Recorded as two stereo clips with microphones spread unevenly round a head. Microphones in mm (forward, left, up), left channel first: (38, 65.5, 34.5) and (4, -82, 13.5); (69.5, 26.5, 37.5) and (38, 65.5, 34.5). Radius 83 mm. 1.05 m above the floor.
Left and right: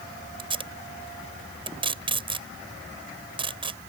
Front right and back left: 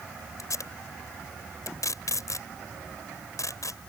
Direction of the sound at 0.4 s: 45° right.